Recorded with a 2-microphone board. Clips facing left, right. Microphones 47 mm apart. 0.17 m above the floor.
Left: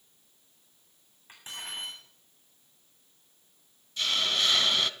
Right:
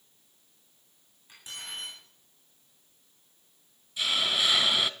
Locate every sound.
1.3 s cutlery clinking: 30° left (ahead or behind), 9.5 m
4.0 s a hiss: 10° right (ahead or behind), 0.7 m